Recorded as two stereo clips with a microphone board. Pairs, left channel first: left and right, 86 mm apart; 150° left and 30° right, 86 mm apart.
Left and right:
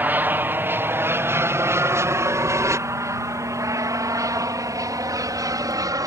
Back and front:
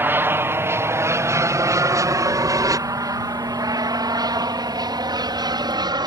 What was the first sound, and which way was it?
An aircraft, 55° right.